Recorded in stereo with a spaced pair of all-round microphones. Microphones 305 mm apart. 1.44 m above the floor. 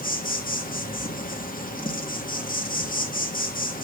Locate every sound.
0.0 s an insect: 30° left (ahead or behind), 1.4 m